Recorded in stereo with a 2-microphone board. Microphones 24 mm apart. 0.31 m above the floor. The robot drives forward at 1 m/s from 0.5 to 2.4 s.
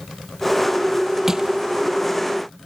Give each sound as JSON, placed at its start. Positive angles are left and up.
{"t": 1.3, "sound": "crushing", "side_deg": -20}